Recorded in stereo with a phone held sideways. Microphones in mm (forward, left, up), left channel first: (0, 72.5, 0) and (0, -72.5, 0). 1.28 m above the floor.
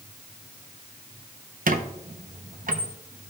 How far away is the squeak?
About 0.6 m.